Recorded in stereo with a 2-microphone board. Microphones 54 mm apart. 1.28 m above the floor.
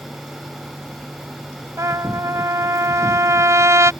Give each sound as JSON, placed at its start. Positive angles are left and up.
{"t": 1.8, "sound": "a trumpet", "side_deg": -65}